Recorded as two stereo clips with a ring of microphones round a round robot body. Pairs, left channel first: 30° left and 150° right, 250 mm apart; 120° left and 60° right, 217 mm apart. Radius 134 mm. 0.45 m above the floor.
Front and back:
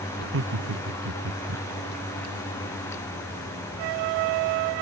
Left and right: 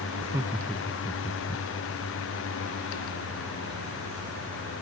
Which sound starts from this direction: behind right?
Laughter, at 0.2 s.